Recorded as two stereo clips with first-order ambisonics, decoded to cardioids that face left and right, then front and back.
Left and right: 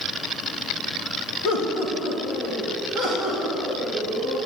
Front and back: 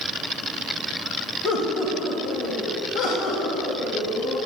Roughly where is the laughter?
Ahead left.